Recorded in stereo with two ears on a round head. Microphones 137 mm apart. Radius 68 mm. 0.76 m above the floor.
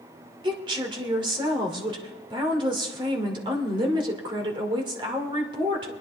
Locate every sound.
0.4 s a woman speaking: 35° right (ahead or behind), 2.5 m